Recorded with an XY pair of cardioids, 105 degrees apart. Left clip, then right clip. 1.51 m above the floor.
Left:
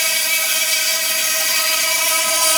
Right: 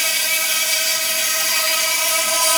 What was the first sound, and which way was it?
An insect, straight ahead.